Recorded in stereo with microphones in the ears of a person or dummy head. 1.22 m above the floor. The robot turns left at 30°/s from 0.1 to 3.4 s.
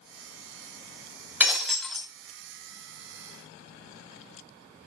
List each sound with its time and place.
1.4 s breaking glass: centre (ahead or behind), 2.5 m; by 2.1 s 15° left (ahead or behind), 2.5 m